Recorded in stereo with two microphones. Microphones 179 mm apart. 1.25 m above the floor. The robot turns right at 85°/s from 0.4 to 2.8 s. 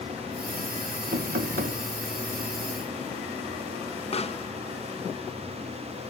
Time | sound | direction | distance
1.1 | knocking | 110° right | 0.8 m
4.1 | a pop | 30° left (ahead or behind) | 0.6 m